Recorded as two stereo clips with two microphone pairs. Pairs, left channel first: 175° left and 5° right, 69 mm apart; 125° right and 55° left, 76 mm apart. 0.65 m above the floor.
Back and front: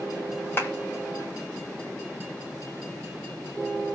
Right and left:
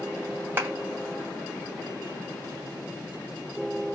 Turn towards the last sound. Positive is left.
turn(degrees=120)